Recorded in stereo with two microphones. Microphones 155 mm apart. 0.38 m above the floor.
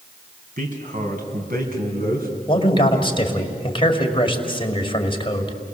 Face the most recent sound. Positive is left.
turn(degrees=35)  # may be behind; listen again after turning